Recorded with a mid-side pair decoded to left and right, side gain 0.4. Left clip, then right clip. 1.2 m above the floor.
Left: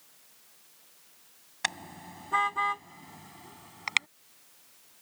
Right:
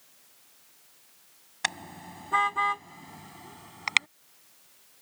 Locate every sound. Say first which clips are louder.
1.6 s a car horn: right 1 dB; 15° right; by 4.1 s 30° right